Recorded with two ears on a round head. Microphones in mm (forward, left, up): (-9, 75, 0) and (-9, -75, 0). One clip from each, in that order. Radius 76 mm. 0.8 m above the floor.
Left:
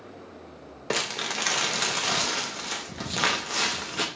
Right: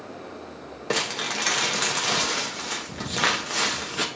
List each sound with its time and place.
0.9 s crumpling: 5° left (ahead or behind), 0.7 m